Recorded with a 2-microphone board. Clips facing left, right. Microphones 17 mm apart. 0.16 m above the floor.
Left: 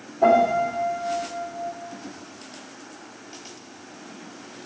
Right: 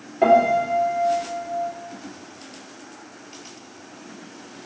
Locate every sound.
0.2 s a piano: 60° right (ahead or behind), 1.6 m